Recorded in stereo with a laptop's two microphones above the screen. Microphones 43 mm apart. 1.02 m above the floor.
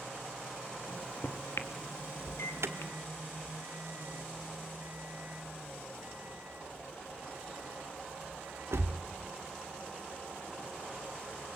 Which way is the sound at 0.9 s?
70° left (ahead or behind).